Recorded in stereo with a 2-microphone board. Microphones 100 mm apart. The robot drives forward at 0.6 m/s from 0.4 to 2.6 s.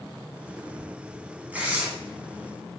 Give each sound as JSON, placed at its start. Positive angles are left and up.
{"t": 1.5, "sound": "tearing paper", "side_deg": -15, "distance_m": 0.9}